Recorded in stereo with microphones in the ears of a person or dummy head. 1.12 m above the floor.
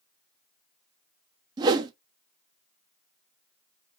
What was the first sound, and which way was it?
A whoosh, 25° right (ahead or behind).